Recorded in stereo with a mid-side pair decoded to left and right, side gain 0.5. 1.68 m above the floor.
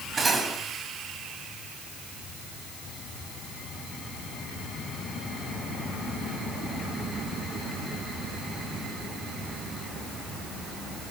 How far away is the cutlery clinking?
About 6.5 m.